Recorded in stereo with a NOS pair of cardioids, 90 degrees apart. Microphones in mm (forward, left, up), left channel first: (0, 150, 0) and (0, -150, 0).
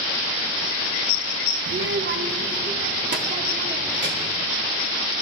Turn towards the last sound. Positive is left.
turn(degrees=-35)